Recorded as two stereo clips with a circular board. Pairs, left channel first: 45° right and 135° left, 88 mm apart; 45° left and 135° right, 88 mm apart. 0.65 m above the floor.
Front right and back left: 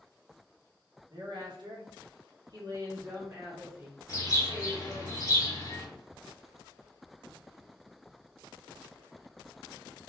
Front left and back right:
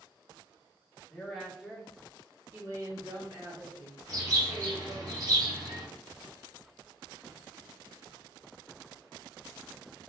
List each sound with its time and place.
1.1 s a woman speaking: 125° left, 1.2 m; by 5.1 s 150° right, 2 m
4.1 s a bird: 95° right, 1.0 m